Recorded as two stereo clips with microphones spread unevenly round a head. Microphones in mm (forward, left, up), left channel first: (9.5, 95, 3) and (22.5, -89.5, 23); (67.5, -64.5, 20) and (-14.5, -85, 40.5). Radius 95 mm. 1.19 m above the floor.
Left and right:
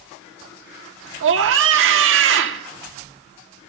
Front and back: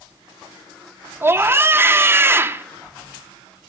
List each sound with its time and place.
1.2 s a scream: 100° right, 1.1 m